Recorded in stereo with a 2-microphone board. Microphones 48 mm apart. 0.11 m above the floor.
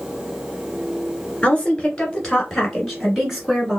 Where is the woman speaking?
15° left (ahead or behind), 1.7 m; by 3.8 s 10° right (ahead or behind), 1.6 m.